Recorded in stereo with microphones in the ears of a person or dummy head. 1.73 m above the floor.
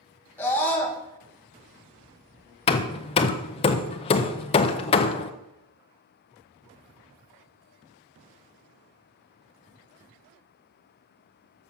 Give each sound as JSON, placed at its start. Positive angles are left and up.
{"t": 0.4, "sound": "a scream", "side_deg": 10, "distance_m": 2.0}
{"t": 2.7, "sound": "hammering", "side_deg": 30, "distance_m": 0.6}